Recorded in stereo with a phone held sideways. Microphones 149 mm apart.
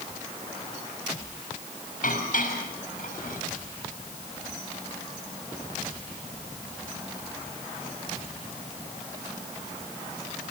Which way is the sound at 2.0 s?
65° left (ahead or behind).